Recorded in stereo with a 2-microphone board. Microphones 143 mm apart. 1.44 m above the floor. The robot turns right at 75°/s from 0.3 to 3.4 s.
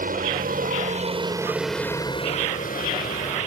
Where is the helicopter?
70° right (ahead or behind); by 3.5 s 55° left (ahead or behind).